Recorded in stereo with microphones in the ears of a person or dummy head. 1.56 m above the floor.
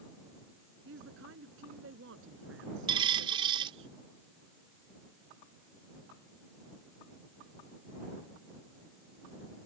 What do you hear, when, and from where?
0.8 s a woman speaking: 75° right (ahead or behind)
2.9 s a dropped coin: 30° right (ahead or behind)